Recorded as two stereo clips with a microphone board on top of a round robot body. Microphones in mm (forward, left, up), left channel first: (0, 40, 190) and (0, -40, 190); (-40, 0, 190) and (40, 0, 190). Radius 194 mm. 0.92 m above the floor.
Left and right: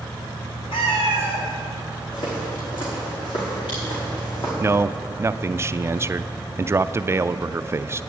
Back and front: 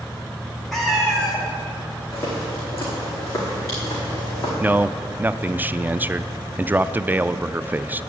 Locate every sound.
0.7 s a cat meowing: 95° left, 1.4 m
2.1 s footsteps: 120° left, 3 m; by 4.5 s 125° left, 4.5 m
4.6 s a man speaking: 55° right, 0.5 m